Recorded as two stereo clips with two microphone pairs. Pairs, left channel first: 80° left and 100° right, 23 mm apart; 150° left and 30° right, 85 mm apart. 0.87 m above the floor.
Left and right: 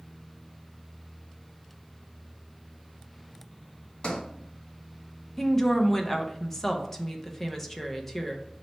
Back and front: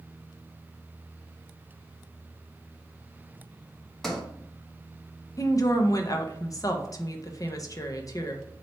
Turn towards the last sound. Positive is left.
turn(degrees=150)